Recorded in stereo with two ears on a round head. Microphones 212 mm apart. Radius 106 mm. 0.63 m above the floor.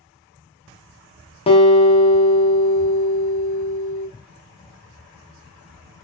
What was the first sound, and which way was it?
A guitar, 20° left (ahead or behind).